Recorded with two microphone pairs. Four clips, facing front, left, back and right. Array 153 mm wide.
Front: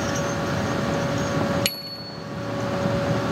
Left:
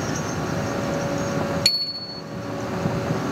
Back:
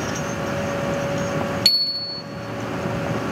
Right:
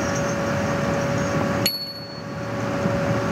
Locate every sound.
1.6 s a bicycle bell: 20° right, 2 m